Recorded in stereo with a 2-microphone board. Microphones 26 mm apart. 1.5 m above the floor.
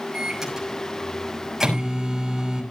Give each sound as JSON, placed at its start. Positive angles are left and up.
{"t": 0.1, "sound": "a microwave", "side_deg": -20, "distance_m": 6.5}